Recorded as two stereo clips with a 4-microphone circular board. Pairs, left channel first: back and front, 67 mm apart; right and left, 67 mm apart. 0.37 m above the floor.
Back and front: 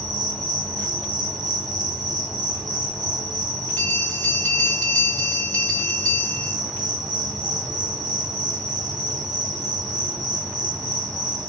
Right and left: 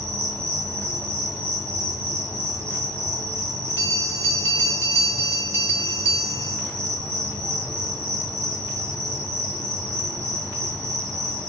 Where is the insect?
105° right, 1.9 m.